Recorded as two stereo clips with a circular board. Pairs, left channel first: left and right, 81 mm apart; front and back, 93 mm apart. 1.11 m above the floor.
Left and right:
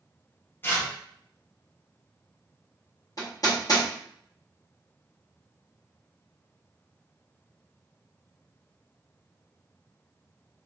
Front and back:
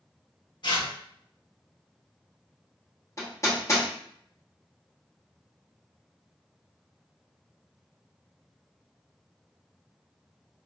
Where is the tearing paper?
30° left, 0.8 m.